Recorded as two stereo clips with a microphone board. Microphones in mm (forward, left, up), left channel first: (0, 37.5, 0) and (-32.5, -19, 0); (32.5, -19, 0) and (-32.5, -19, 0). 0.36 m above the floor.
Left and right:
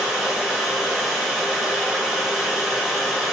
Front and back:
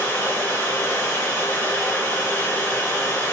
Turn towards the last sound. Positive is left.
turn(degrees=-40)